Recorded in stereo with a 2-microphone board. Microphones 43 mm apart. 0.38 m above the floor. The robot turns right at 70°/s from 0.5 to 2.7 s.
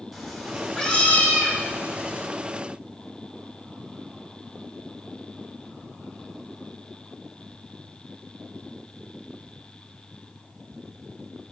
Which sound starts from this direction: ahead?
A cat meowing, at 0.1 s.